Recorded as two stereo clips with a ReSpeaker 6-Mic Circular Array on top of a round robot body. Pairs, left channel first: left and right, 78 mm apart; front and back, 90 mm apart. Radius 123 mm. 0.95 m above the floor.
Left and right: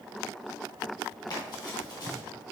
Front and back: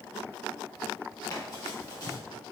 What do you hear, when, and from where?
1.3 s running footsteps: 55° left, 1.7 m